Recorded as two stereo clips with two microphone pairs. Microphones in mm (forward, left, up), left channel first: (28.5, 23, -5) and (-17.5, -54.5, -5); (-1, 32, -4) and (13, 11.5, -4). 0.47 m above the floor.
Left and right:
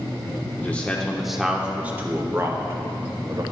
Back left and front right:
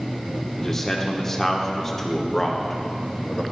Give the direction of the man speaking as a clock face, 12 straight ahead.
9 o'clock.